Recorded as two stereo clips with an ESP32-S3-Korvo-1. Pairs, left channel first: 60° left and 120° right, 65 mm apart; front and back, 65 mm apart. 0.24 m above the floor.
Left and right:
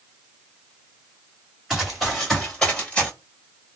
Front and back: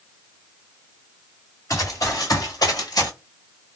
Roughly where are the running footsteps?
Ahead right.